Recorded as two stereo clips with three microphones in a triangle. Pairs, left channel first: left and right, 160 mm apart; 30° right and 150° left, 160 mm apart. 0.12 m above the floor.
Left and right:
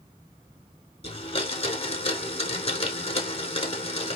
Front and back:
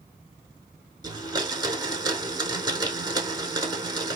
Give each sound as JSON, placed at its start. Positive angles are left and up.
{"t": 1.0, "sound": "a blender", "azimuth_deg": 100, "distance_m": 0.7}